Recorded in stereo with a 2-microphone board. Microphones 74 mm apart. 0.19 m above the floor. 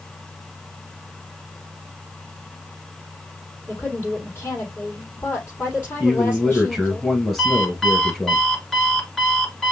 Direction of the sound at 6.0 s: 5° left (ahead or behind).